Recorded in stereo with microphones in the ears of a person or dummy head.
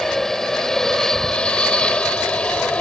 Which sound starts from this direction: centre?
An aircraft, at 0.0 s.